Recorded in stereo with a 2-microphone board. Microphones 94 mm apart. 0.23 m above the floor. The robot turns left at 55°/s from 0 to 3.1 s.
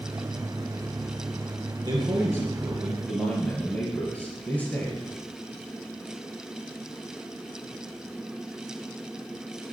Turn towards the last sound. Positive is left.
turn(degrees=165)